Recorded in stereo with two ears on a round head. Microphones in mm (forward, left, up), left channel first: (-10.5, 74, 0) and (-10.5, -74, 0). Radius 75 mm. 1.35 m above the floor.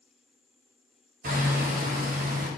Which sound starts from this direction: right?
Hammering, at 1.2 s.